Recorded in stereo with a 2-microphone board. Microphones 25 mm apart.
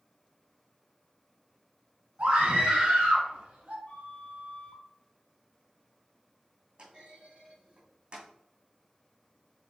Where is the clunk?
40° right (ahead or behind), 2.5 m.